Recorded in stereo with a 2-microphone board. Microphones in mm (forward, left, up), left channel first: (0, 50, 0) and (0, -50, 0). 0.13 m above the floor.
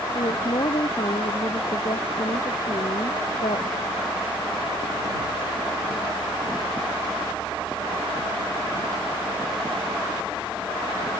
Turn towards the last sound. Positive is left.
turn(degrees=65)  # may be behind; listen again after turning